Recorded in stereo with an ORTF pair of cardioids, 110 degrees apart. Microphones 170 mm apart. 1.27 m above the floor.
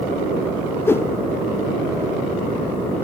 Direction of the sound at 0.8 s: 15° left.